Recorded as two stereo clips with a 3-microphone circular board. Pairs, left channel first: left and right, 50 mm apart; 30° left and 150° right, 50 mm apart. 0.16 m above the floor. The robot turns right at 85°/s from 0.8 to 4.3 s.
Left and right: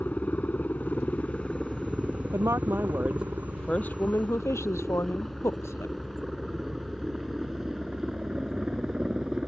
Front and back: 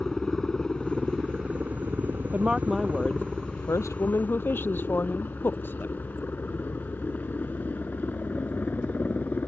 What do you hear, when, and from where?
0.0 s a helicopter: 110° left; by 9.5 s 15° right
2.3 s a woman speaking: 95° right; by 6.0 s 75° left